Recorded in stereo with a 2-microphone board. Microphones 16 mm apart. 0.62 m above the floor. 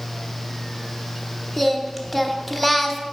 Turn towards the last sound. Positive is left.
turn(degrees=5)  # may be behind; listen again after turning